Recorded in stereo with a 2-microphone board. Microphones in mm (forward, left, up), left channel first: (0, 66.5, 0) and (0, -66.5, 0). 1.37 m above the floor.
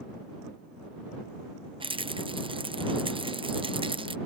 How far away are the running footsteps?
I don't hear running footsteps.